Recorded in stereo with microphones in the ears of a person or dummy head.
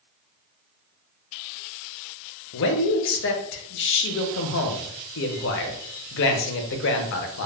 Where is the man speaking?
65° left (ahead or behind), 0.5 m.